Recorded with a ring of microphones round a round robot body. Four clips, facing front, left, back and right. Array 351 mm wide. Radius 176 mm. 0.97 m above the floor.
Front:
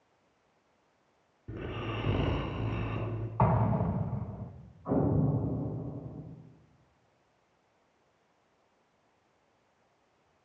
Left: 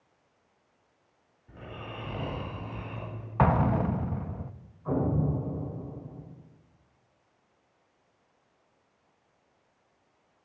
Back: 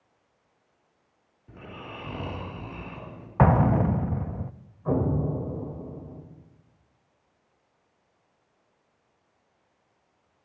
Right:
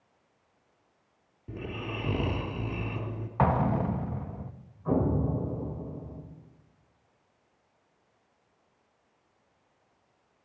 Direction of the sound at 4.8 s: 175° right.